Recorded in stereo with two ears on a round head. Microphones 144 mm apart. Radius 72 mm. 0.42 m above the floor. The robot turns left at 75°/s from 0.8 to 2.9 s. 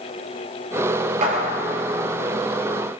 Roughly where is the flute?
I don't hear a flute.